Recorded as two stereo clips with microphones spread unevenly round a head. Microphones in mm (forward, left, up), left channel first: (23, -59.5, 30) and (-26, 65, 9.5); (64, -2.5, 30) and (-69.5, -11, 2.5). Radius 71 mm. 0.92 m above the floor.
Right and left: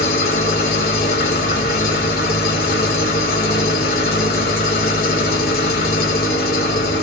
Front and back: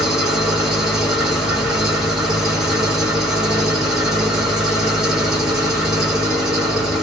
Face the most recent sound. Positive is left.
turn(degrees=-90)